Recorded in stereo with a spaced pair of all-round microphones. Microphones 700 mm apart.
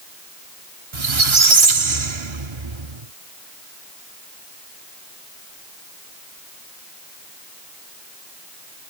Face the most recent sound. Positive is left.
turn(degrees=-45)  # may be behind; listen again after turning